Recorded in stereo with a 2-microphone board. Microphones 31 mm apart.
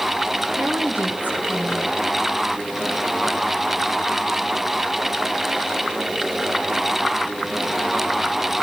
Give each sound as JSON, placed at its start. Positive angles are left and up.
{"t": 0.6, "sound": "a woman speaking", "side_deg": -65, "distance_m": 5.0}